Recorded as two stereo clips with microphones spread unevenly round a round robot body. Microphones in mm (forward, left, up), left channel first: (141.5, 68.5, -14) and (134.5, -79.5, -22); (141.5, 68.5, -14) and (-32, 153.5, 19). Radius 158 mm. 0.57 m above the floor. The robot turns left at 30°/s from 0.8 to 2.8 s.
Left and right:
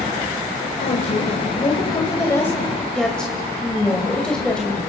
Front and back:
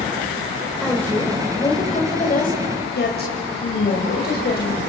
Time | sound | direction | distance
0.8 | a woman speaking | 65° left | 2.5 m